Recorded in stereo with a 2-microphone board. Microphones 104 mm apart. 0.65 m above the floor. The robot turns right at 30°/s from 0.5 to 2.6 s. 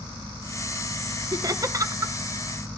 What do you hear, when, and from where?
1.3 s laughter: 35° right (ahead or behind), 0.7 m; by 2.1 s 30° right (ahead or behind), 0.7 m